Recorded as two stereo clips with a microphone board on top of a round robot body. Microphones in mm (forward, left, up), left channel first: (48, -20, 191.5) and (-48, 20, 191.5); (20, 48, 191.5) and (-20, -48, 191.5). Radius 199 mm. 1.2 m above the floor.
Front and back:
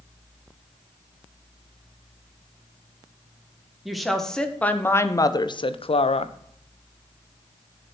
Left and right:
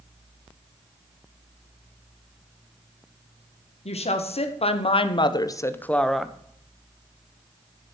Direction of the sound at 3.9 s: 70° left.